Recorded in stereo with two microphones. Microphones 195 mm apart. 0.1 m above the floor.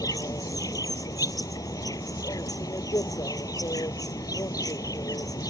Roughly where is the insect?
Centre.